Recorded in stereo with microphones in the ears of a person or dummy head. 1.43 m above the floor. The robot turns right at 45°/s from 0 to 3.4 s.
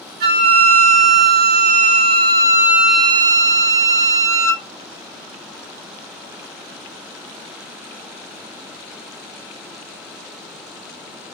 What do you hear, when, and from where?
0.2 s a flute: 130° right, 0.5 m; by 4.7 s 15° left, 0.5 m